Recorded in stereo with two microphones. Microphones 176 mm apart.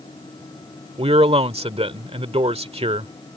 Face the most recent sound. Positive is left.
turn(degrees=-35)  # may be behind; listen again after turning